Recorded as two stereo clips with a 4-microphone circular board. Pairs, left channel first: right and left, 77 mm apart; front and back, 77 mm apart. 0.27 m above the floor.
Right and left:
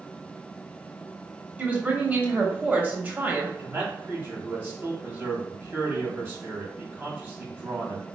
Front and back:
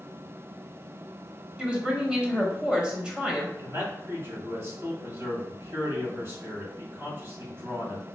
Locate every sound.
1.6 s a woman speaking: 115° left, 0.9 m
3.6 s a man speaking: 140° left, 1.7 m